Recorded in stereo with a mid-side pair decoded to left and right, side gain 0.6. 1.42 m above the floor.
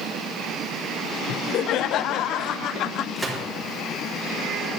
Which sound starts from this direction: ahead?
A gunshot, at 3.2 s.